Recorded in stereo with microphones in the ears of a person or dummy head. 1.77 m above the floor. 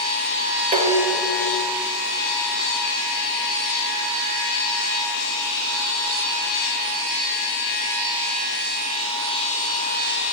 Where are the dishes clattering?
35° right (ahead or behind), 1.3 m.